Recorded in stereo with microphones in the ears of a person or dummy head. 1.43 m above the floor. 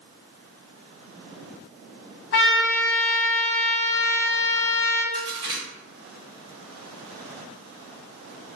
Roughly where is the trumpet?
Left.